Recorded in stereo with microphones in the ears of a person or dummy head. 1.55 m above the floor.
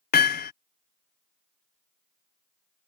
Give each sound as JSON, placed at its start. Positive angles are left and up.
{"t": 0.1, "sound": "hammering", "side_deg": 45}